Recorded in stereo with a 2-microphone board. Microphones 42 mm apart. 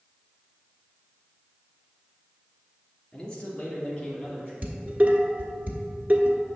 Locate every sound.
3.1 s a man speaking: 20° left (ahead or behind), 1.6 m; by 4.5 s 25° left (ahead or behind), 3 m
4.6 s dishes clattering: 40° right (ahead or behind), 1.0 m